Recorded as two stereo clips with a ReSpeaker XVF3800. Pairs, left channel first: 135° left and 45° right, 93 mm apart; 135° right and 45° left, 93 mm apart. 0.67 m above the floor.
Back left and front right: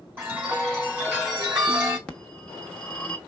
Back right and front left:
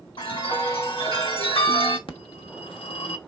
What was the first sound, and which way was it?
A chime, 115° right.